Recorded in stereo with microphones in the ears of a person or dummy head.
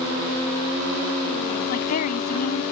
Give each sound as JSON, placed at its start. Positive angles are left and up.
{"t": 1.7, "sound": "a woman speaking", "side_deg": 40}